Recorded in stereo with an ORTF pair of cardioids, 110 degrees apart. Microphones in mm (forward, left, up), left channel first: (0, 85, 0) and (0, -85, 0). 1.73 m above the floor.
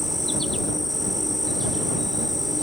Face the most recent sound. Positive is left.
turn(degrees=0)